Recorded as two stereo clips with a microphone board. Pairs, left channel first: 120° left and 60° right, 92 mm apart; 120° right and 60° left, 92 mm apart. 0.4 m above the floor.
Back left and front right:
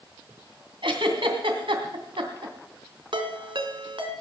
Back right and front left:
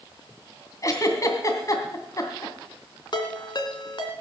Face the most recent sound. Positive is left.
turn(degrees=-85)